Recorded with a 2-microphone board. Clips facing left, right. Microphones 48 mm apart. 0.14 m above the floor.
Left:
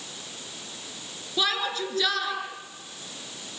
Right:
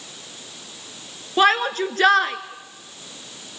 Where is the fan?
No fan in this recording.